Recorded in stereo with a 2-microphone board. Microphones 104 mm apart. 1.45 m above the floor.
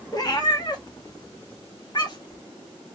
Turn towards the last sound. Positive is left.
turn(degrees=45)  # may be behind; listen again after turning